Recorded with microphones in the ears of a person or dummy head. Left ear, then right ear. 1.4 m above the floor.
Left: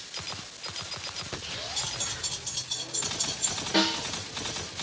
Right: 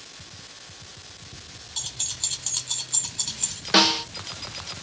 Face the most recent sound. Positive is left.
turn(degrees=-65)  # may be behind; listen again after turning